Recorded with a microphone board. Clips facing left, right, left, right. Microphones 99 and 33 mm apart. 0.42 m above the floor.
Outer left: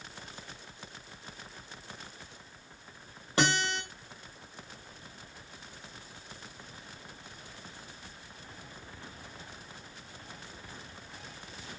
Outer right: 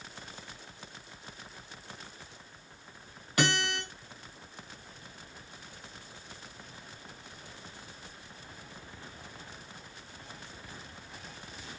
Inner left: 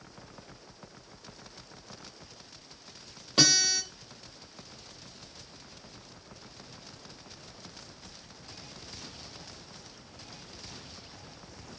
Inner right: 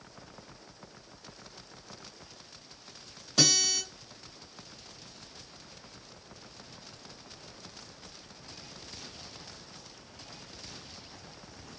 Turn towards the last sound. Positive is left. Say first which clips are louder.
# outer left 1 dB, inner left 1 dB
turn(degrees=30)  # may be behind; listen again after turning